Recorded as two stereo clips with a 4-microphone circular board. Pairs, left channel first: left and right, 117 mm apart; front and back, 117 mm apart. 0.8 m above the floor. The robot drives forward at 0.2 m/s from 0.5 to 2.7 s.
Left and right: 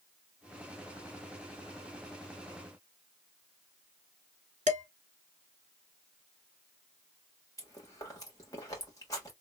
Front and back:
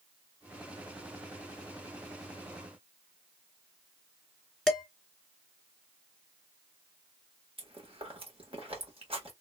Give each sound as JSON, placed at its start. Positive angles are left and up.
{"t": 4.7, "sound": "dishes clattering", "azimuth_deg": -95, "distance_m": 1.3}
{"t": 7.6, "sound": "chewing", "azimuth_deg": 150, "distance_m": 1.5}